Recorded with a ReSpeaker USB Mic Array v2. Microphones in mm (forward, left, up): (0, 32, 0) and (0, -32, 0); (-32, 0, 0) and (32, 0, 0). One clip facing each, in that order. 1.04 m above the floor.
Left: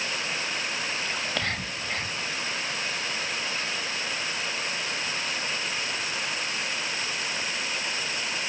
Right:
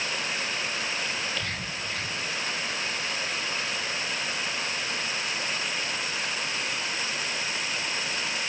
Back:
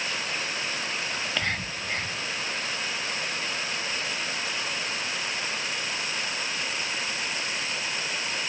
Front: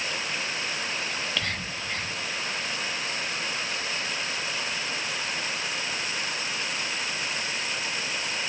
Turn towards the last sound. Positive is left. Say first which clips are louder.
# left 2 dB, back 1 dB
turn(degrees=105)